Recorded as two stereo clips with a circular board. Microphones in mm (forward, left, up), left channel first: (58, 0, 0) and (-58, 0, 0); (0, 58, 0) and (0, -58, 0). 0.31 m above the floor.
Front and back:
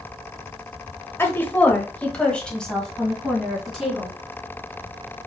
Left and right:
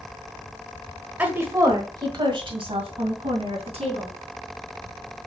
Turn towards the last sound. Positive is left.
turn(degrees=-90)